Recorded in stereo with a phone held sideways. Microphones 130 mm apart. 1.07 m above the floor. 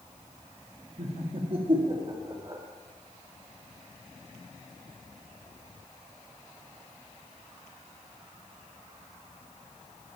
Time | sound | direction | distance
1.0 | laughter | 55° right (ahead or behind) | 2.5 m